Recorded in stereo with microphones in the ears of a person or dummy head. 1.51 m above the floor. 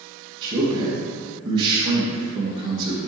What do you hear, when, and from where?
0.4 s a man speaking: 25° right (ahead or behind), 2 m